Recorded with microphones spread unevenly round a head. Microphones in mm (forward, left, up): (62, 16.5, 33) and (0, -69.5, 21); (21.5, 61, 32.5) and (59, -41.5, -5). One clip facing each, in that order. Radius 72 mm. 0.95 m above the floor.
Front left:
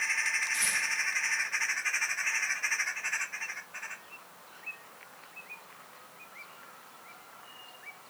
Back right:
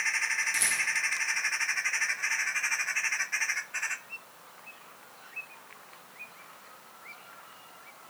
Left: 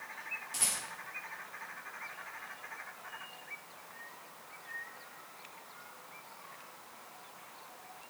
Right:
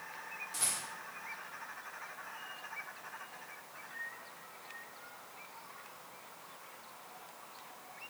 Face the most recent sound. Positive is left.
turn(degrees=-175)